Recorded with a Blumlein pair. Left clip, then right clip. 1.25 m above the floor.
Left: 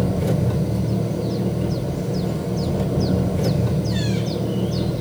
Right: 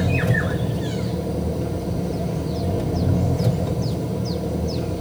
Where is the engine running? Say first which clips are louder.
Right 1 dB; 5° left, 4 m.